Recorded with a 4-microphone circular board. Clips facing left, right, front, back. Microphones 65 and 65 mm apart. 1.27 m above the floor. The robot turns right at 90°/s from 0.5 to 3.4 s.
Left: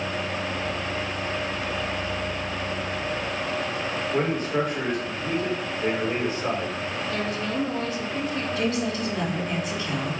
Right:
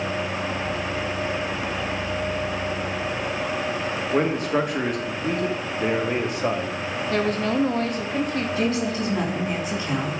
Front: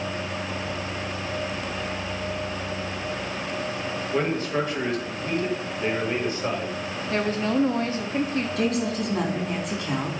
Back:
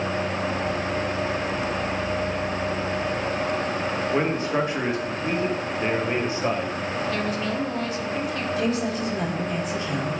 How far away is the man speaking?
About 2.0 m.